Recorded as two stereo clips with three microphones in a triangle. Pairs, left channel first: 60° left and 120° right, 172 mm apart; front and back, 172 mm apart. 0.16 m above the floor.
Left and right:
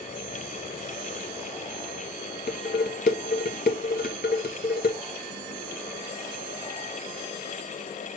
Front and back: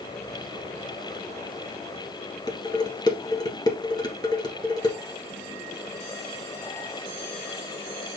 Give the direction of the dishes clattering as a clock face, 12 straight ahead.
10 o'clock.